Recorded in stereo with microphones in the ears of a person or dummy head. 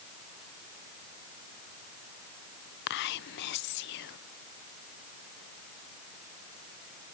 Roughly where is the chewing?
No chewing in this recording.